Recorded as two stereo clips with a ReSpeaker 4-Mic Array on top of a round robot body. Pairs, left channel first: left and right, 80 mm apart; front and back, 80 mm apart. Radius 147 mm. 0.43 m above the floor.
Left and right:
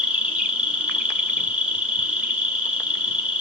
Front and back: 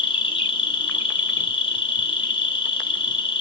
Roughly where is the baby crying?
I don't hear a baby crying.